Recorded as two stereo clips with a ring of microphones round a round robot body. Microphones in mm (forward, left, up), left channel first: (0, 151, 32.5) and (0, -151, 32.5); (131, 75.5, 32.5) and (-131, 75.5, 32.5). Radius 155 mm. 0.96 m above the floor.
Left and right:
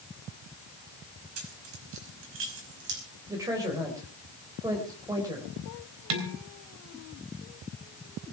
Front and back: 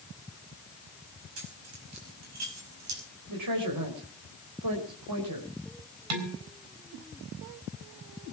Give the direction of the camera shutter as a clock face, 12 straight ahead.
No camera shutter in this recording.